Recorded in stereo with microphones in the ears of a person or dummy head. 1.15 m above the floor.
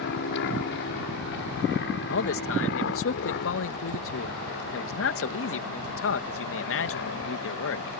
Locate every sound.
0.0 s an aircraft: 60° left (ahead or behind)
2.1 s a man speaking: 65° left (ahead or behind)